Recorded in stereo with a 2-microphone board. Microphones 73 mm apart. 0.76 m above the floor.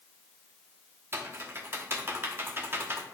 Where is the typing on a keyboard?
35° right (ahead or behind), 0.9 m.